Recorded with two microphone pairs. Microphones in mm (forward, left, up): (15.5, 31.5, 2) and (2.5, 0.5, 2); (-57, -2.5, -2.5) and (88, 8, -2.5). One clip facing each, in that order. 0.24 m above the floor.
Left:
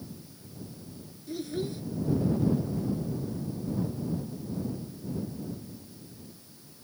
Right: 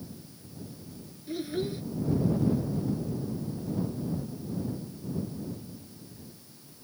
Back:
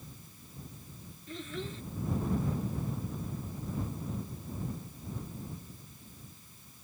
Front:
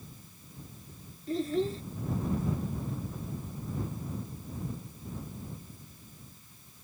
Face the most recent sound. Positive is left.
turn(degrees=-45)